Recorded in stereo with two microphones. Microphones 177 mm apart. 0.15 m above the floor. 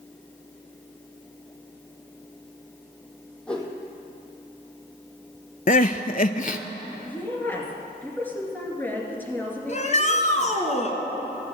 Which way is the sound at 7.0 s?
10° left (ahead or behind).